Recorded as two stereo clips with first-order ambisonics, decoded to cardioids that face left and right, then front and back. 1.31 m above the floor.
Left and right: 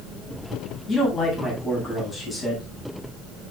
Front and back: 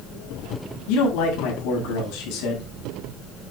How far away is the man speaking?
About 9.5 m.